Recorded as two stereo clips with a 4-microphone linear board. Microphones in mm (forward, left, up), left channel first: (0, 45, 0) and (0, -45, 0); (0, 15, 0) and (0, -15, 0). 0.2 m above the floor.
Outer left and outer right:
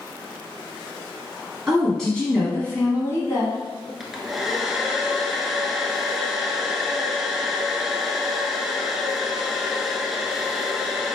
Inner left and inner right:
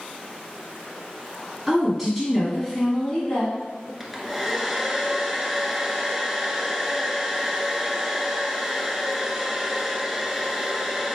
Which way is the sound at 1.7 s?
Centre (ahead or behind).